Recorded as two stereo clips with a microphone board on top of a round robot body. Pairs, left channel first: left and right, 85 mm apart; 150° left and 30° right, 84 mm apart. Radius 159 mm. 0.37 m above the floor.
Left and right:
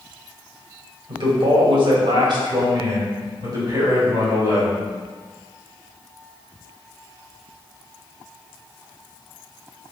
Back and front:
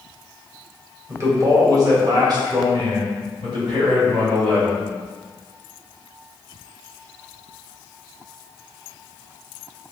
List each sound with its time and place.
1.1 s a man speaking: 85° right, 2.5 m; by 4.8 s 35° right, 3.5 m